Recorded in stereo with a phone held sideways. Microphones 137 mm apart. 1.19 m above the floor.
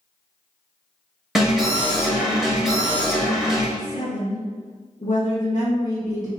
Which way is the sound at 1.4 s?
Centre (ahead or behind).